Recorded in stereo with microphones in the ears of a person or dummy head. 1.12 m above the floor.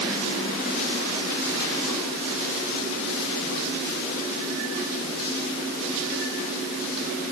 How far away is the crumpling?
I don't hear crumpling.